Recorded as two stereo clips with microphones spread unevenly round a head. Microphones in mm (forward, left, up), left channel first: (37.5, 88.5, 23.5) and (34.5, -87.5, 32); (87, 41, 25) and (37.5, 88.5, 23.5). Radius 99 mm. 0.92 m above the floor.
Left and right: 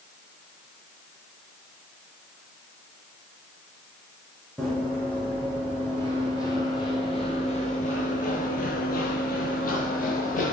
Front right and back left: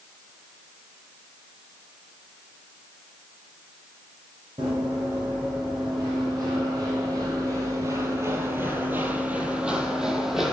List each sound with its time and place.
4.6 s running footsteps: 175° left, 2.5 m; by 10.5 s 50° left, 1.6 m